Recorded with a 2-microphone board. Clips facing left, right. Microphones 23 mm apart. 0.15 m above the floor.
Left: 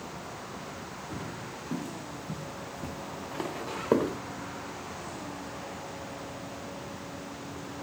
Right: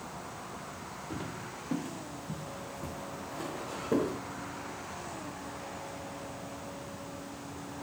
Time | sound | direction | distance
1.1 | footsteps | 35° right (ahead or behind) | 1.1 m